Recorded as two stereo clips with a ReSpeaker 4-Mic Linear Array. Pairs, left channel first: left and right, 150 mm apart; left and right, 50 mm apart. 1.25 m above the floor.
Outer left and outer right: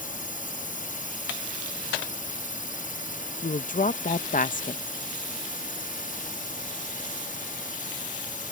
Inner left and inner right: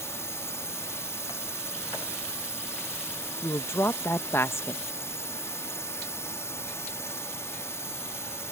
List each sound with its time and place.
0.0 s a drone: 65° left (ahead or behind)
3.4 s a woman speaking: 60° left (ahead or behind)